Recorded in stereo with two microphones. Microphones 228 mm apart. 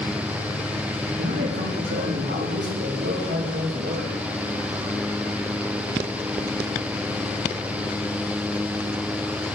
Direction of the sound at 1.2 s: 60° right (ahead or behind).